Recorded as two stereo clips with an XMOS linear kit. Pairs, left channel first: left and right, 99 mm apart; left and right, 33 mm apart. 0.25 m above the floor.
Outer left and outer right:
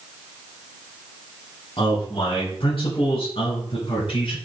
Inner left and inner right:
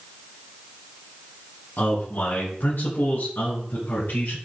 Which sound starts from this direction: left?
A man speaking, at 1.8 s.